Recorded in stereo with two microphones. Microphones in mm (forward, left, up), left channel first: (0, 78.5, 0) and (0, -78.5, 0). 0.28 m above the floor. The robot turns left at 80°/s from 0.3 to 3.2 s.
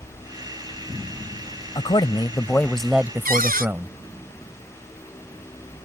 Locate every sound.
1.8 s a man speaking: 90° left; by 4.0 s 30° right
3.2 s a cupboard door: 65° right (ahead or behind)